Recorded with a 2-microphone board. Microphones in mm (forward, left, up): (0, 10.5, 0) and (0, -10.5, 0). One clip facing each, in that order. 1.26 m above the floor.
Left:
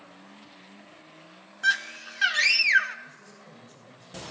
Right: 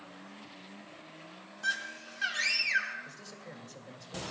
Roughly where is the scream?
Left.